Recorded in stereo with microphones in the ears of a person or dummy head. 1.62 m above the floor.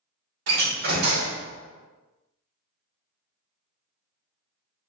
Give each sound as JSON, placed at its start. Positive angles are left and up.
{"t": 0.5, "sound": "a door slam", "side_deg": -65, "distance_m": 1.5}